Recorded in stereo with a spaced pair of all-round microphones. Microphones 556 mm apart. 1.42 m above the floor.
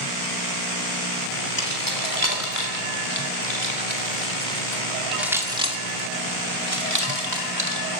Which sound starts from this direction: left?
Keys jangling, at 1.6 s.